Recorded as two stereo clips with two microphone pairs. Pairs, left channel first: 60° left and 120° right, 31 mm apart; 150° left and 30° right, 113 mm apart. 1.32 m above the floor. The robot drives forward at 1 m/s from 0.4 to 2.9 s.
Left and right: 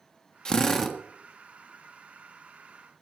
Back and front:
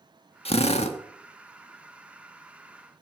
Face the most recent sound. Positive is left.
turn(degrees=160)